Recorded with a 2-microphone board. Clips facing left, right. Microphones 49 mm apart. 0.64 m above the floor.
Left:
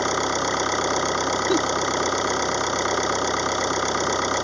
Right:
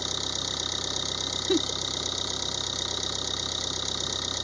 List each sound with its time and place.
0.0 s an engine running: 50° left (ahead or behind)
1.5 s a giggle: 10° left (ahead or behind)